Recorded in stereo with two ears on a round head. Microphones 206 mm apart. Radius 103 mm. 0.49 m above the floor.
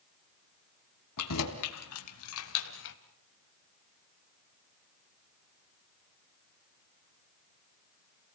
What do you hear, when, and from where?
1.2 s keys jangling: 80° left, 3 m; by 3.0 s 55° left (ahead or behind), 1.8 m